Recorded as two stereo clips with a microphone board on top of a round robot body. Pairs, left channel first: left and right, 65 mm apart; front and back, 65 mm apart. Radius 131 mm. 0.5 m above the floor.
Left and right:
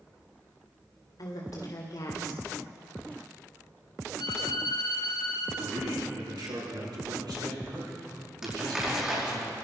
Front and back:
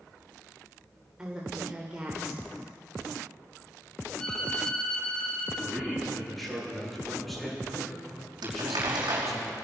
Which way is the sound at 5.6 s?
85° right.